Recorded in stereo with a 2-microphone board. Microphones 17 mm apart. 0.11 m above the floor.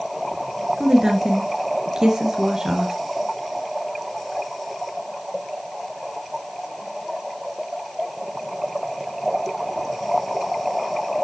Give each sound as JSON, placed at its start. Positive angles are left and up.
{"t": 0.8, "sound": "a woman speaking", "side_deg": -40, "distance_m": 2.0}